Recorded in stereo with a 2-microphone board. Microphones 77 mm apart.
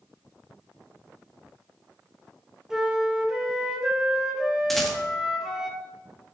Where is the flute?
5° right (ahead or behind), 1.0 m.